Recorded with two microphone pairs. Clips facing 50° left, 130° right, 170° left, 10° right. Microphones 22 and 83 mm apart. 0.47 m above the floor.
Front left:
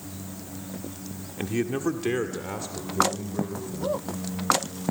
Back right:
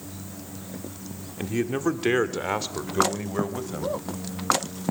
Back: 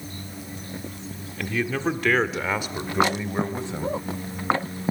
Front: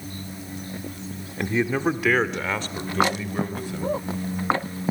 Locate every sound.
1.4 s a man speaking: 20° right, 1.2 m; by 4.0 s 125° right, 3 m